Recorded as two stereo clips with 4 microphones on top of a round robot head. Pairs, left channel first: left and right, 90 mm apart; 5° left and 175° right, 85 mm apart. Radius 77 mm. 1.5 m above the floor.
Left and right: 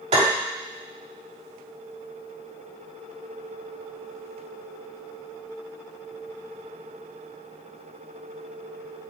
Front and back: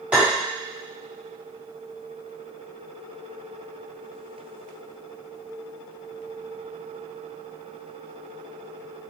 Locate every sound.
0.1 s tapping: 95° right, 3.5 m